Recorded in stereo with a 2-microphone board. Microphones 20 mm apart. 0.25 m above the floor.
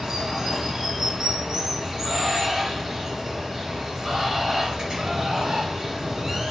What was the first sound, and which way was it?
Running water, 25° right (ahead or behind).